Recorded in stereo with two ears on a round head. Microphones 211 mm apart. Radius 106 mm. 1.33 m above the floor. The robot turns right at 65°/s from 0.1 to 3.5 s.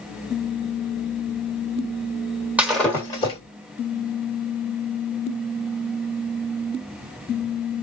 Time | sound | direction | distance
2.6 | breaking glass | 5° right (ahead or behind) | 1.2 m